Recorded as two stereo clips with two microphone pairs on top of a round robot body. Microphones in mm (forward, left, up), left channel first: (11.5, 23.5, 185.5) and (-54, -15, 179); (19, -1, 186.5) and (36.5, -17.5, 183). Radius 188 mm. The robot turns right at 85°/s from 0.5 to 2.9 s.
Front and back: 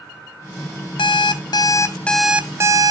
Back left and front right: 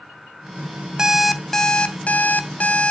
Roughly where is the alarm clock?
Ahead.